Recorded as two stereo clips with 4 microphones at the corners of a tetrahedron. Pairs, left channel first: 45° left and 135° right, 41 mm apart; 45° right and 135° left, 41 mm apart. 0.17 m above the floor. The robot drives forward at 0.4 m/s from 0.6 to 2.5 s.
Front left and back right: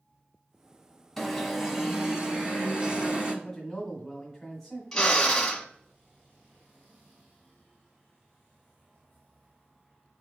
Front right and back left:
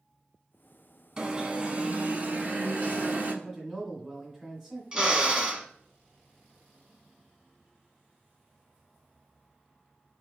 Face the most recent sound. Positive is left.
turn(degrees=110)